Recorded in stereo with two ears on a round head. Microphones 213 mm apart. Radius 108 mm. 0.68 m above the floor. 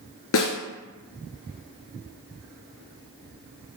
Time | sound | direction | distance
0.3 | a snare drum | 60° left (ahead or behind) | 1.9 m